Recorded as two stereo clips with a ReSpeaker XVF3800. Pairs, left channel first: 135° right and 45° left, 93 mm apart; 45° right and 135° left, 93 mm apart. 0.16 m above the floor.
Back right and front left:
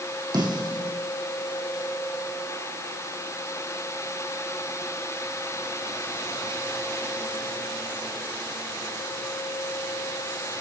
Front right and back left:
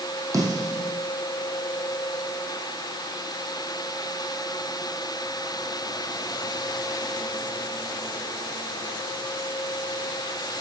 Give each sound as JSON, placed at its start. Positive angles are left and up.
{"t": 0.3, "sound": "a snare drum", "azimuth_deg": 85, "distance_m": 7.0}